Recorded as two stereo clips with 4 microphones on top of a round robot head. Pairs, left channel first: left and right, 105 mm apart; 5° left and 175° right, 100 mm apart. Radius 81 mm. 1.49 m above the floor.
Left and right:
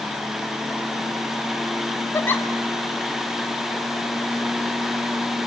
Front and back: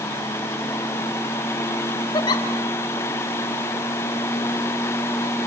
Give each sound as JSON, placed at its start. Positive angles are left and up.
{"t": 2.1, "sound": "a giggle", "azimuth_deg": 30, "distance_m": 1.1}